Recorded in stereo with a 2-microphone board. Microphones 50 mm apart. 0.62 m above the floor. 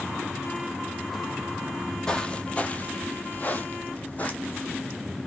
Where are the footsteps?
20° left (ahead or behind), 0.8 m; by 4.8 s 30° left (ahead or behind), 1.4 m.